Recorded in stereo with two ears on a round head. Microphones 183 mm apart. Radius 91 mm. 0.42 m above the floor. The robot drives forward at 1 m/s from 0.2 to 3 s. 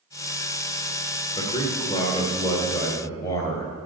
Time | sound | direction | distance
1.4 | a man speaking | 25° left (ahead or behind) | 1.3 m